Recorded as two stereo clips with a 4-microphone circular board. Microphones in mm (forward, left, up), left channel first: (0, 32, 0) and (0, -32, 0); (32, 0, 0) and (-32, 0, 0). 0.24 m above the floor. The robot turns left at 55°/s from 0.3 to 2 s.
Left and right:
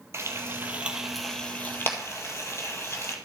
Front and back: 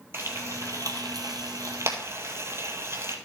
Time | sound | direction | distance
0.1 | frying | 130° right | 1.7 m